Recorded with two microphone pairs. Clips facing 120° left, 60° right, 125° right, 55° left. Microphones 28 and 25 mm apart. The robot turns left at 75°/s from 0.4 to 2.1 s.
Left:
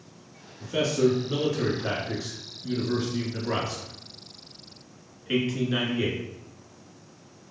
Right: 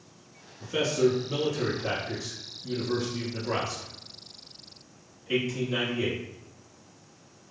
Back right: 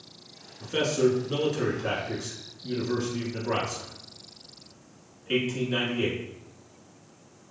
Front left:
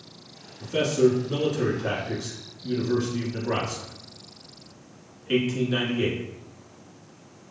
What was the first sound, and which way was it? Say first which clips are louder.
A man speaking: left 1 dB, front left 3 dB; 120° right.